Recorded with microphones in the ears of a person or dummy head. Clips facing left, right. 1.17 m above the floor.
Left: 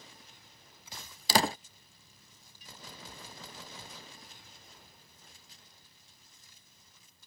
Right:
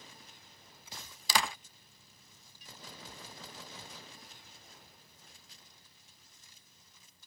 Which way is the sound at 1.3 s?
35° left (ahead or behind).